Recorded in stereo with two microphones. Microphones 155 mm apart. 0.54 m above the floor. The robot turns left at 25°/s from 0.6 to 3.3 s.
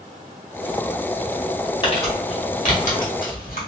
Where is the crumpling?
30° left (ahead or behind), 1.3 m; by 3.7 s 65° left (ahead or behind), 1.3 m.